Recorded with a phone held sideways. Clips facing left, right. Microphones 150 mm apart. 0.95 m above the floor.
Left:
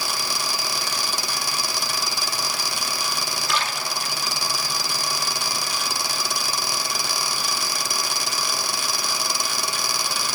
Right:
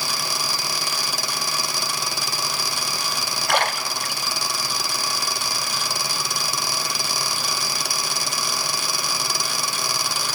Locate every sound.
3.5 s a splash: 60° right (ahead or behind), 0.8 m